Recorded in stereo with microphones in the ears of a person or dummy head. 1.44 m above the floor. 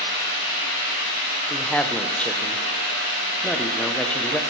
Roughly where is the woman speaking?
Centre.